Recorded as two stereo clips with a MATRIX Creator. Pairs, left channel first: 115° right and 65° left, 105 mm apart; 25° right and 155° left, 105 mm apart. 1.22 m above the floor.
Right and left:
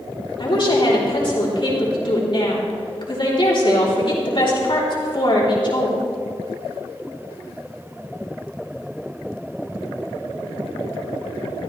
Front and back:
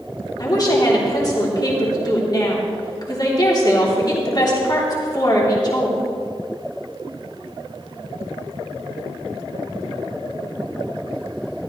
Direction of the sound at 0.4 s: 70° right.